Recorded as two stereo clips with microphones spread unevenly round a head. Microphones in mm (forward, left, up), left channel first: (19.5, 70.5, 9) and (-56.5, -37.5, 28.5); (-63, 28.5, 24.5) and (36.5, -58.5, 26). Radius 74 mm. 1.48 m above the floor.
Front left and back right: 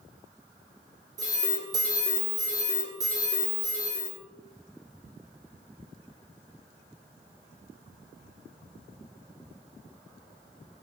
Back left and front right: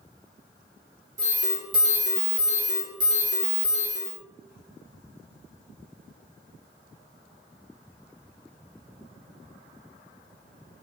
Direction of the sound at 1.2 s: 65° right.